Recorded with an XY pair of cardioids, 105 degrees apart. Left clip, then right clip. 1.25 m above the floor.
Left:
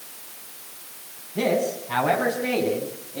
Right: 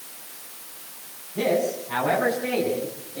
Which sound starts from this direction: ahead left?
A man speaking, at 1.4 s.